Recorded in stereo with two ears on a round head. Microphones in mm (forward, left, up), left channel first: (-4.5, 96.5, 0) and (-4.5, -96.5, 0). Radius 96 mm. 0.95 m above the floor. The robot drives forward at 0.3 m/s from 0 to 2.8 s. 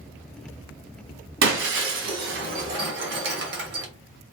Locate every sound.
1.4 s breaking glass: 60° right (ahead or behind), 1.7 m; by 3.9 s 55° right (ahead or behind), 1.9 m